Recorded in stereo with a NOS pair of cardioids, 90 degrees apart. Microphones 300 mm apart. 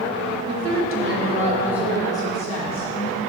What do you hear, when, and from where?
0.5 s a woman speaking: 60° right, 1.6 m; by 3.2 s 40° left, 1.9 m